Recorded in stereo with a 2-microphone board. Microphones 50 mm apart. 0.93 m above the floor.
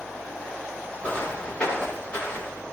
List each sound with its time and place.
1.0 s footsteps: 25° left (ahead or behind), 5.5 m; by 2.6 s 20° left (ahead or behind), 7.5 m